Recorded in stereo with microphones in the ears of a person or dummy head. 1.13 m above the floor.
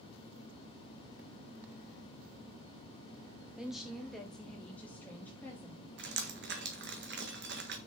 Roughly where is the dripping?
Right.